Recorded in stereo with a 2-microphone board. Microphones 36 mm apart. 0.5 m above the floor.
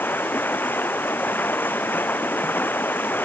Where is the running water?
75° left (ahead or behind).